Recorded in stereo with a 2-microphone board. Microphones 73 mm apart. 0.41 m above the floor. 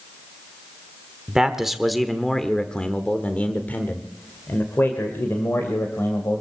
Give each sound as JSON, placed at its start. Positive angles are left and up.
{"t": 1.3, "sound": "a man speaking", "side_deg": -10, "distance_m": 1.4}